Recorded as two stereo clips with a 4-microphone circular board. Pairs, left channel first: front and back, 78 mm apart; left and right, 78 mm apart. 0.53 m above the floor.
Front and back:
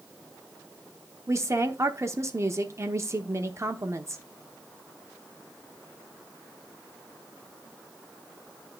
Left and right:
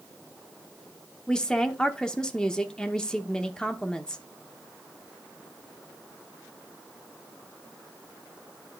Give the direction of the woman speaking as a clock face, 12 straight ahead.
7 o'clock.